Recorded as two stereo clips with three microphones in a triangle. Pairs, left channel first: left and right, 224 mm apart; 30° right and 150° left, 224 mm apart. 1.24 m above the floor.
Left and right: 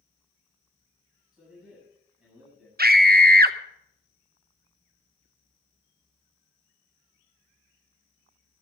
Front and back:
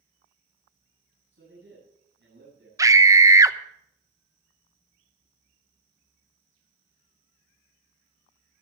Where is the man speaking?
175° right, 8 m.